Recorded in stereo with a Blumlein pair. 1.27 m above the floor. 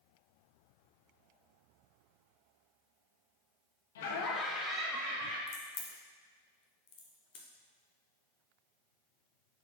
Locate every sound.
4.0 s laughter: 60° left, 0.9 m; by 5.4 s 35° right, 1.5 m
5.5 s a crack: 35° left, 0.7 m